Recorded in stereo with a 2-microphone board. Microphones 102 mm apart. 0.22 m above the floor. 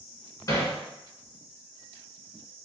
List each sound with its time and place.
0.5 s hammering: 35° left (ahead or behind), 1.3 m